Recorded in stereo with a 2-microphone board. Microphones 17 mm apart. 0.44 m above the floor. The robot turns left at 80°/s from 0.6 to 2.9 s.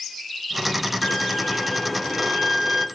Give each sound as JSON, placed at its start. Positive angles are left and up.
{"t": 1.0, "sound": "a violin", "azimuth_deg": 80, "distance_m": 2.0}